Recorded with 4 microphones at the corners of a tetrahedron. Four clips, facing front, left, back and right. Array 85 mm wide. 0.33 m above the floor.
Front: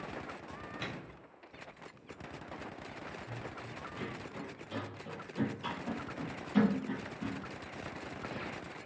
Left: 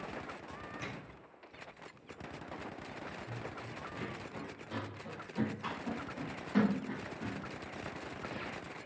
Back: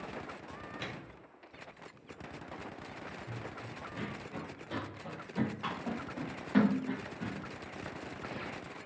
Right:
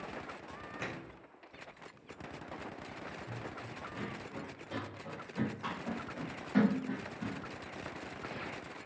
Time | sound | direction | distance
0.8 | a microwave | 90° right | 1.3 m
3.3 | running footsteps | 155° right | 5.5 m